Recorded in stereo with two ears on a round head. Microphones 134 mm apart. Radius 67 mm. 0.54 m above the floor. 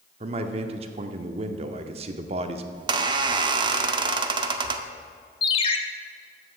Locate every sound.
0.2 s a man speaking: 45° right (ahead or behind), 0.8 m
2.7 s a squeak: 30° right (ahead or behind), 0.7 m
5.4 s a ringtone: 40° left (ahead or behind), 0.9 m